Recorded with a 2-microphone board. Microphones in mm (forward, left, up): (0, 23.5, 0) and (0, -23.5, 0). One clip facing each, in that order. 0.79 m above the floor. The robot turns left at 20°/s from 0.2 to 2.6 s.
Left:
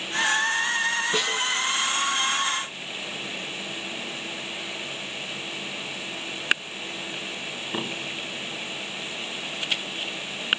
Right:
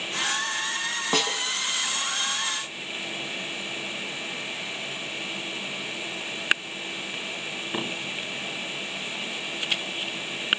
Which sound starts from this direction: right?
A snare drum, at 1.1 s.